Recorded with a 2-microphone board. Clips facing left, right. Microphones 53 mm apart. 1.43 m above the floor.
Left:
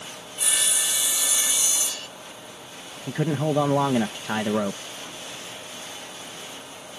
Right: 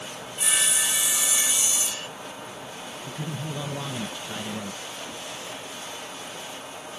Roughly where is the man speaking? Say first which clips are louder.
Left 11 dB; left.